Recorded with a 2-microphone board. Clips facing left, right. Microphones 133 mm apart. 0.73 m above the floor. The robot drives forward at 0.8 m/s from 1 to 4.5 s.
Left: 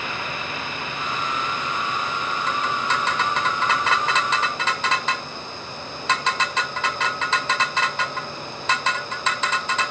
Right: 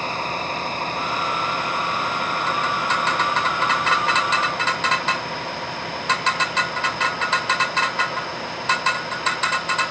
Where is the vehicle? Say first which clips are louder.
Right 4 dB; 40° right (ahead or behind); by 9.9 s 90° right.